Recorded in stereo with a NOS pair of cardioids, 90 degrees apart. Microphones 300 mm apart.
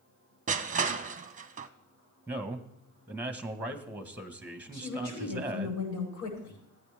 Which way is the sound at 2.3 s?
5° right.